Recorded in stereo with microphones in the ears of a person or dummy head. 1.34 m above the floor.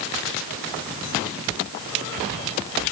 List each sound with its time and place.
Only background noise.